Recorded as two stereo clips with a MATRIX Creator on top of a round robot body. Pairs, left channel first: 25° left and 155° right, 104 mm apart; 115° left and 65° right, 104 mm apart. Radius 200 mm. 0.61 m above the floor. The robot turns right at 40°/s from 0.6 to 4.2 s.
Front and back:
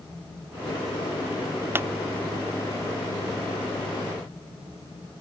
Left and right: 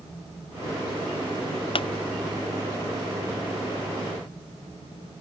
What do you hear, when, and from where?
1.8 s a pop: 135° left; by 1.9 s 140° left